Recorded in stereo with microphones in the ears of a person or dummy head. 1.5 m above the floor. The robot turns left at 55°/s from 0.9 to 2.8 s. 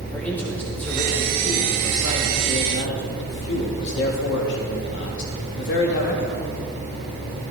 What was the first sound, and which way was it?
A man speaking, 170° left.